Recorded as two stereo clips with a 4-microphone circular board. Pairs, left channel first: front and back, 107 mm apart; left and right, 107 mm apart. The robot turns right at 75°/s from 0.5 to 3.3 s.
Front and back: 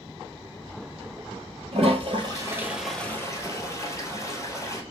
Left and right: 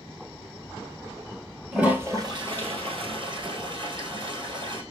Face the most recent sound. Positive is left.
turn(degrees=-60)